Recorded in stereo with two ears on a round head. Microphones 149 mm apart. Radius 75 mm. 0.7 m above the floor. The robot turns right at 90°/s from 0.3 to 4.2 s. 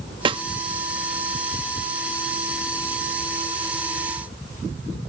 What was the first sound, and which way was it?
A snare drum, 30° right (ahead or behind).